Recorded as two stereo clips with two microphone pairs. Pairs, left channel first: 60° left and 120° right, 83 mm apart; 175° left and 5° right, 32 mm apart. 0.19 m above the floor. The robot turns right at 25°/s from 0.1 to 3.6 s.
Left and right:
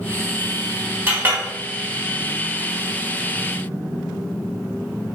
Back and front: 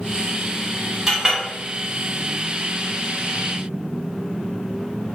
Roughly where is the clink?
Right.